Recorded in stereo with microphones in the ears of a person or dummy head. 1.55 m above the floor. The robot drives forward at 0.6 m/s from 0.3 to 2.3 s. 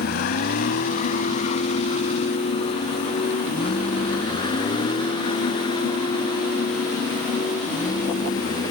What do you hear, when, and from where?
0.0 s a vehicle: 60° left (ahead or behind); by 8.7 s 20° left (ahead or behind)